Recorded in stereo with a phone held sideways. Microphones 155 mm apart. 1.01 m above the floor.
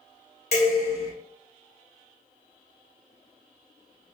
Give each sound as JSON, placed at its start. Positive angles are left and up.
{"t": 0.5, "sound": "dishes clattering", "side_deg": 80, "distance_m": 1.7}